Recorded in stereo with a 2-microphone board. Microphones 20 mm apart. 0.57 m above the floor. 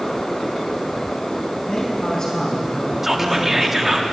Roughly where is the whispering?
Centre.